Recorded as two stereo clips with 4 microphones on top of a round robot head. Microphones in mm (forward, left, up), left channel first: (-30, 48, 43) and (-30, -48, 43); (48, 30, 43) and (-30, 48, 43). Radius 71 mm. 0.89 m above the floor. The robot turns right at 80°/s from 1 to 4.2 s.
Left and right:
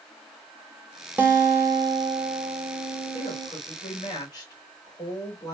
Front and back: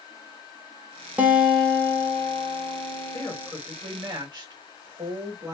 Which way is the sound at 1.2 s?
140° right.